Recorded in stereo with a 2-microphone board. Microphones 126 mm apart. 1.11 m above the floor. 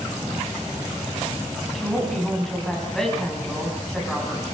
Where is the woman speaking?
5° left (ahead or behind), 7 m.